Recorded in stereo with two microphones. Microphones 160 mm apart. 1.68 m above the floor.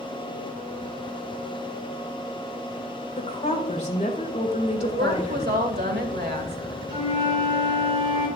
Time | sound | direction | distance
3.2 | a woman speaking | 45° left (ahead or behind) | 2 m
4.8 | a woman speaking | 80° right | 1.8 m
6.9 | a flute | 30° right (ahead or behind) | 4 m